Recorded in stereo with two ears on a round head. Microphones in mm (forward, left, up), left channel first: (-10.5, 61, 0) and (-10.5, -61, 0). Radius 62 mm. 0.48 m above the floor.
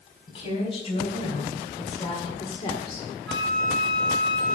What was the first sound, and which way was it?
A woman speaking, 40° left (ahead or behind).